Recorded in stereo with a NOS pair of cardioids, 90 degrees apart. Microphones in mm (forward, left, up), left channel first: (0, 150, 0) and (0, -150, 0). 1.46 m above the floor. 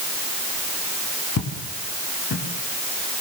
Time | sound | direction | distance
1.4 | footsteps | 55° left | 9 m